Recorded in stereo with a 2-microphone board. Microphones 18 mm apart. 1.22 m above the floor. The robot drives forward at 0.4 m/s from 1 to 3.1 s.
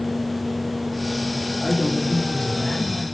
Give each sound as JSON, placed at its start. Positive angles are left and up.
{"t": 1.6, "sound": "a man speaking", "side_deg": 20, "distance_m": 3.0}